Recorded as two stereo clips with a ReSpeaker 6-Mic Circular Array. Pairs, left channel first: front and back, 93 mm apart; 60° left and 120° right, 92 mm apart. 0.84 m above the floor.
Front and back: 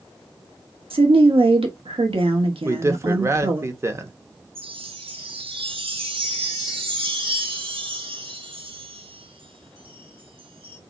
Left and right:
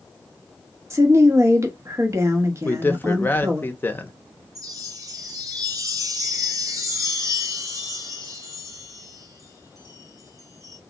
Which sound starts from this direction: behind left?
A man speaking, at 2.6 s.